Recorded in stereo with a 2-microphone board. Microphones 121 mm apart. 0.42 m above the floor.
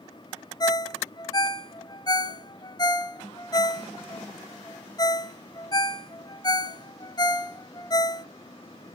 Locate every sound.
0.6 s a ringtone: 30° left (ahead or behind), 0.7 m